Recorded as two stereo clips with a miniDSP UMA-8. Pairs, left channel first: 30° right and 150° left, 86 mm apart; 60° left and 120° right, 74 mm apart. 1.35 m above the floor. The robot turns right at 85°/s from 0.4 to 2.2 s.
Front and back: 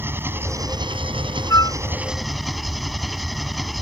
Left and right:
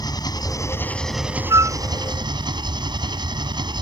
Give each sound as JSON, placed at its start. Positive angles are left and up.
{"t": 0.0, "sound": "an engine running", "azimuth_deg": 85}
{"t": 1.5, "sound": "a flute", "azimuth_deg": -85}